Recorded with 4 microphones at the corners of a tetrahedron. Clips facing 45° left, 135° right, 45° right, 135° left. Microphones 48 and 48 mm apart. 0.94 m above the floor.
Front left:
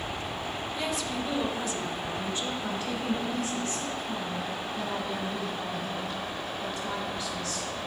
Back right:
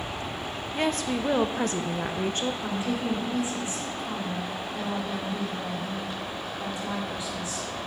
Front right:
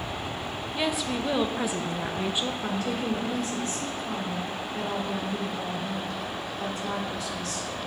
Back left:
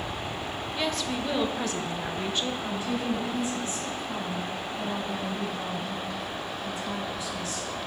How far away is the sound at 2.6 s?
About 2 m.